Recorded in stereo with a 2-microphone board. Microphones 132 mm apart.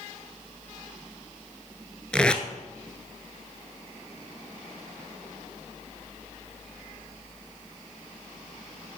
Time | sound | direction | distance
2.1 | tape being pulled | 5° left (ahead or behind) | 0.7 m